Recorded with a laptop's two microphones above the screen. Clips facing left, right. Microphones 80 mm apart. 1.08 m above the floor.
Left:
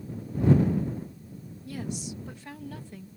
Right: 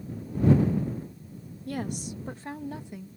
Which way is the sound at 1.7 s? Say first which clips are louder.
Right 3 dB; 55° right (ahead or behind).